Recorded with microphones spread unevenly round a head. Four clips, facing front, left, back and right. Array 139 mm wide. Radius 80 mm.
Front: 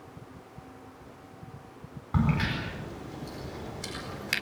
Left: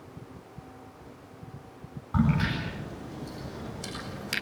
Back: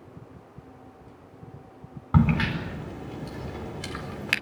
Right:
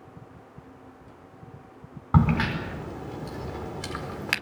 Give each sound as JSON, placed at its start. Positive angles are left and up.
{"t": 2.1, "sound": "a crack", "azimuth_deg": -105, "distance_m": 4.0}